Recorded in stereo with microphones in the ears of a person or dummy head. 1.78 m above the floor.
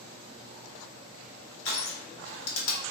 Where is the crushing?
70° left (ahead or behind), 1.2 m.